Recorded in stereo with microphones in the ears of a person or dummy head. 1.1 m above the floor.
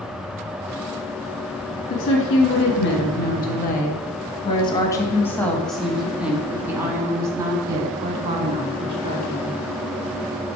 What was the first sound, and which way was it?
A woman speaking, 65° left (ahead or behind).